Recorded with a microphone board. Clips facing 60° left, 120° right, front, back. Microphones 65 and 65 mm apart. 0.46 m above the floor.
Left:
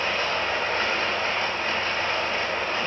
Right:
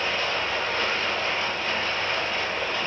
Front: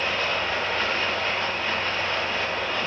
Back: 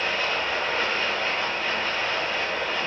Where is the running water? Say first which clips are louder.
Left 1 dB, even; 100° left, 1.4 m.